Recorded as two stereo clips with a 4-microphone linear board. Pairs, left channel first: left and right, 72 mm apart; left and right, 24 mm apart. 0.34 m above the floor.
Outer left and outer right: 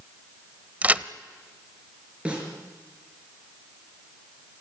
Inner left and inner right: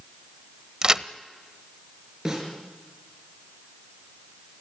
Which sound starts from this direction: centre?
A snare drum, at 2.2 s.